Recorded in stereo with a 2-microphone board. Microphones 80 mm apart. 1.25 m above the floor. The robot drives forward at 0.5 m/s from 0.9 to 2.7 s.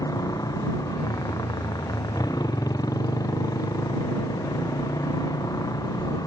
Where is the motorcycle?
50° left (ahead or behind).